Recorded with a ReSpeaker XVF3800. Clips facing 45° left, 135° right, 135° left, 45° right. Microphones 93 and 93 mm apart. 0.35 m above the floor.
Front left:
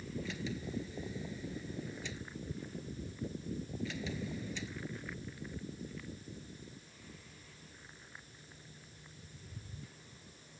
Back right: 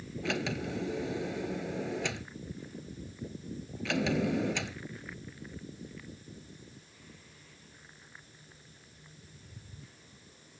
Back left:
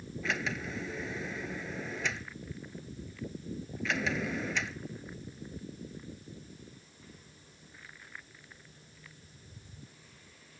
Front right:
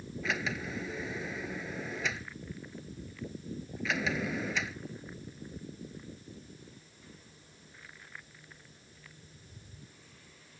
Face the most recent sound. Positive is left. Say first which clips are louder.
# back right 7 dB, even
turn(degrees=-135)